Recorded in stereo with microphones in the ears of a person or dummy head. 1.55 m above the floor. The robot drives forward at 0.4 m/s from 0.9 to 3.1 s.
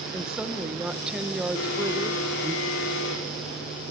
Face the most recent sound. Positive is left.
turn(degrees=75)  # may be behind; listen again after turning